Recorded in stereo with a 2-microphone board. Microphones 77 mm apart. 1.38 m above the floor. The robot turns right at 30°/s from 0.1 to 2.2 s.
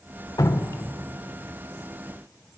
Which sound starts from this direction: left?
Dripping, at 0.4 s.